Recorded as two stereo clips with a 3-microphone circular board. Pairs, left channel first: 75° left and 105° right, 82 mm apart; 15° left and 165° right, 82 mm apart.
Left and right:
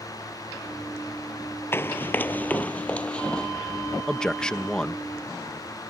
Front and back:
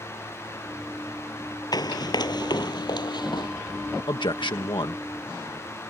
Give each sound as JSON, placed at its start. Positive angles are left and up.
{"t": 1.7, "sound": "running footsteps", "azimuth_deg": 20}
{"t": 4.1, "sound": "a man speaking", "azimuth_deg": -5}